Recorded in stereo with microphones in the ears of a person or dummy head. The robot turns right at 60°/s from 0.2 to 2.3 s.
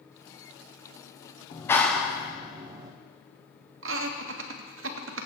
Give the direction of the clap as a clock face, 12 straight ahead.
7 o'clock.